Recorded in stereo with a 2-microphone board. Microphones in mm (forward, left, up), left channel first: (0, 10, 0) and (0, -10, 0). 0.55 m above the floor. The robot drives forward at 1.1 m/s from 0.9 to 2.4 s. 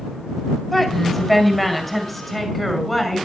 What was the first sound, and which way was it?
A woman speaking, 5° left (ahead or behind).